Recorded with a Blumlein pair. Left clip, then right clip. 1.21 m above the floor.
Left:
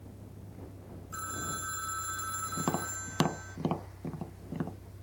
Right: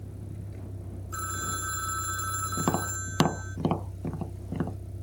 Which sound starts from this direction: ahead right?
A vehicle, at 0.0 s.